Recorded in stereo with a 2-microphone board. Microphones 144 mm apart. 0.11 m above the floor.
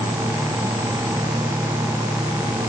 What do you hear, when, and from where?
Only background noise.